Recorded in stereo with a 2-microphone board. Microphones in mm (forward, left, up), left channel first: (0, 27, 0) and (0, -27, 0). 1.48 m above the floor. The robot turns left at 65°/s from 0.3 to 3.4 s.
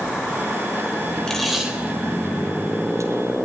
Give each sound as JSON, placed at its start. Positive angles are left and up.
{"t": 1.3, "sound": "tape being pulled", "side_deg": 15, "distance_m": 5.0}